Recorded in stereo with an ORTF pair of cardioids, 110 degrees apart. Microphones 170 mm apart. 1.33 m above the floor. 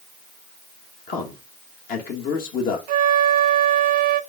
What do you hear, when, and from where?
1.1 s a man speaking: 60° left, 2 m
2.9 s a flute: 65° right, 0.6 m